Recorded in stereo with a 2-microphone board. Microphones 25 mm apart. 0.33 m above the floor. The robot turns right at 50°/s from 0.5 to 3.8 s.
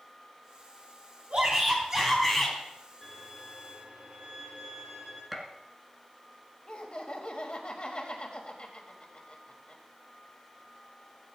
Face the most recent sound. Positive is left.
turn(degrees=40)  # may be behind; listen again after turning